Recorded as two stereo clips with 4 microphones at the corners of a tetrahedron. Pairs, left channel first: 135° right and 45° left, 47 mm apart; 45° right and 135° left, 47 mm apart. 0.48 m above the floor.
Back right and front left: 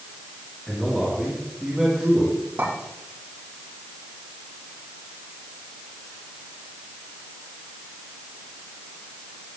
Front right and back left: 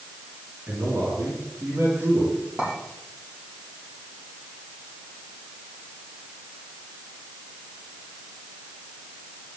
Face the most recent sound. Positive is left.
turn(degrees=75)